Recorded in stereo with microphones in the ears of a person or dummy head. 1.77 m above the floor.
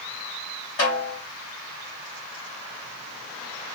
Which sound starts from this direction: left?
A snare drum, at 0.8 s.